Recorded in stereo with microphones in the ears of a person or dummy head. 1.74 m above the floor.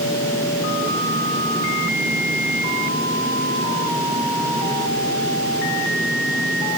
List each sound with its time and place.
Only background noise.